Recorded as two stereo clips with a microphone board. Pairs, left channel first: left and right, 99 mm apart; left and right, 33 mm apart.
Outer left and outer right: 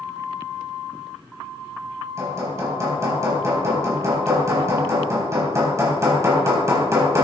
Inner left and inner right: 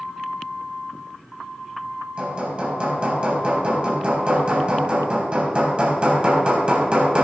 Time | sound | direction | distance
2.2 | hammering | 30° right (ahead or behind) | 3.5 m